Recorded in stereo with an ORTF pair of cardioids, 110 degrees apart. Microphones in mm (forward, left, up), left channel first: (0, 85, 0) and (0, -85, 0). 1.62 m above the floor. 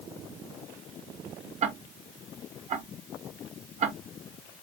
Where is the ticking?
40° right, 1.0 m.